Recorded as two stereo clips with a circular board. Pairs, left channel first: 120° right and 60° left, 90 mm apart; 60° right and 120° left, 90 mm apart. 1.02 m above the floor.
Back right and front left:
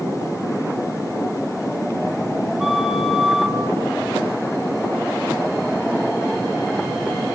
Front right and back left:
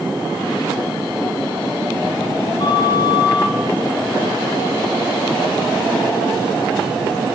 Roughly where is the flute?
Ahead right.